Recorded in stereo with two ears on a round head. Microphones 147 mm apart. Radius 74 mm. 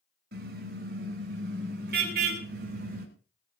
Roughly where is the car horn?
Right.